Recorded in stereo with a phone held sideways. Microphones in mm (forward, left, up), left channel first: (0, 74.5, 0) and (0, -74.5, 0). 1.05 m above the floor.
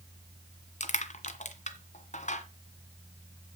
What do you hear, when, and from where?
0.8 s crushing: 55° left (ahead or behind), 1.6 m